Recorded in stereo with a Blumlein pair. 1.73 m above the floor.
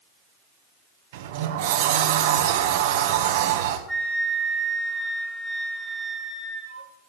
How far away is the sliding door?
About 1.8 m.